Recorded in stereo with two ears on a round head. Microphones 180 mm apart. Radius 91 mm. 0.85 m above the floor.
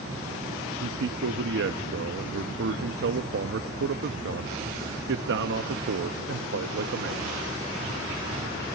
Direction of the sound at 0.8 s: 65° right (ahead or behind).